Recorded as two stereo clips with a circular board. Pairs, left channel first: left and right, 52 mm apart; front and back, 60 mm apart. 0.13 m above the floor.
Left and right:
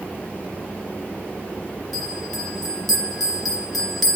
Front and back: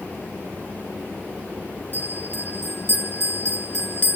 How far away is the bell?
About 1.1 m.